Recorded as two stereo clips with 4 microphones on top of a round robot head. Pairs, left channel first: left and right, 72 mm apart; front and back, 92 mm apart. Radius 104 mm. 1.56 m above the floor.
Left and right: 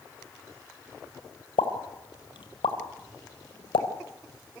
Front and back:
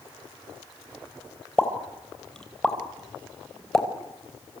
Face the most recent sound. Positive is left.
turn(degrees=85)